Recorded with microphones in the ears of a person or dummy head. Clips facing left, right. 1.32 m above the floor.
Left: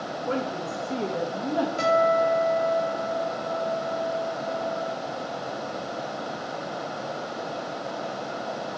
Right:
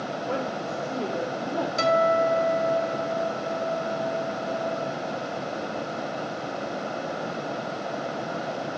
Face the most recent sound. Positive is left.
turn(degrees=-30)  # may be behind; listen again after turning